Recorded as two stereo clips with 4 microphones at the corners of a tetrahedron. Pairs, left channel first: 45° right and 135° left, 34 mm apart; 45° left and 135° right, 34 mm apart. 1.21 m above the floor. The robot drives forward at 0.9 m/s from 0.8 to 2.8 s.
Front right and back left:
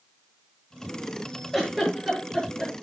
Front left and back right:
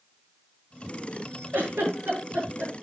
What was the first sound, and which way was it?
A giggle, 145° right.